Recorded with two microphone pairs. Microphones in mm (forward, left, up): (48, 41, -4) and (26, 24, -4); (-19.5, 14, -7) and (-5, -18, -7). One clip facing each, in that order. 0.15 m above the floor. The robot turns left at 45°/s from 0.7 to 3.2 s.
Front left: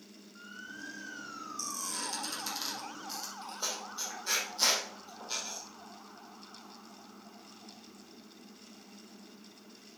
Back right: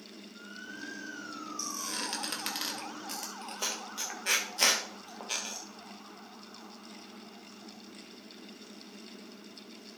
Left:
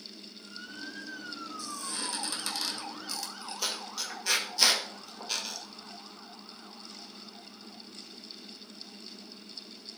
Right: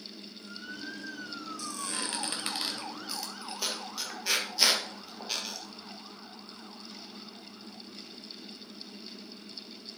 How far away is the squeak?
About 1.9 m.